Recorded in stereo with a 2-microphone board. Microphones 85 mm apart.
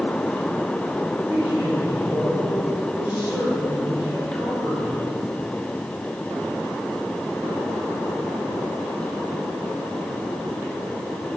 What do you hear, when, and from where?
1.1 s a man speaking: 25° right (ahead or behind), 3.5 m